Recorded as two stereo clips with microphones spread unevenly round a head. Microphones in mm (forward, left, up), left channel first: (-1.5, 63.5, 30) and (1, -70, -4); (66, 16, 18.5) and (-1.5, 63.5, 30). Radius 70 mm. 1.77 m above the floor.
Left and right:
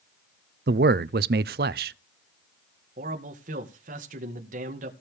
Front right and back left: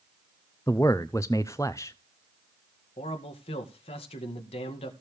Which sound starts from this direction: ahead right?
A man speaking, at 3.0 s.